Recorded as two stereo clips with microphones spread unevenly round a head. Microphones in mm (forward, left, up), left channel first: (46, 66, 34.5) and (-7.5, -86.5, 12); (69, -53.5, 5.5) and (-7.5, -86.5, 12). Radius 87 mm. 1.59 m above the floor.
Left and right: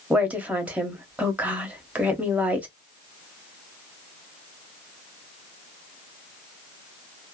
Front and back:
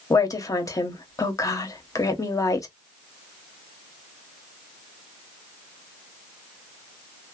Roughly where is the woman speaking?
Ahead right.